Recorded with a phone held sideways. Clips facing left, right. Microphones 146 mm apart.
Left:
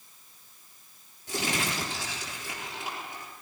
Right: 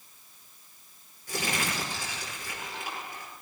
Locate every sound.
1.3 s crumpling: 20° left (ahead or behind), 9.5 m